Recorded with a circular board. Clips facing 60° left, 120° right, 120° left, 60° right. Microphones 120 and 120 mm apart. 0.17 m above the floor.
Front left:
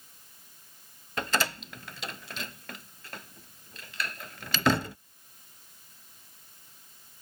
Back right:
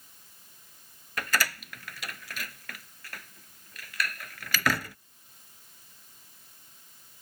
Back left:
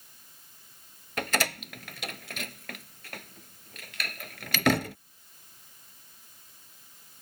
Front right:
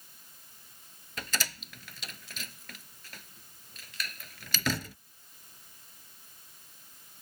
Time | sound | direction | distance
1.2 | a door slam | 120° left | ?